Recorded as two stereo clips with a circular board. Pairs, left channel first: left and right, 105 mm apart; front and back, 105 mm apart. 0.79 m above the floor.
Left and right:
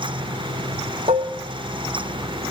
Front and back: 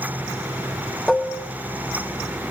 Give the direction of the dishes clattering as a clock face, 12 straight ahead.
3 o'clock.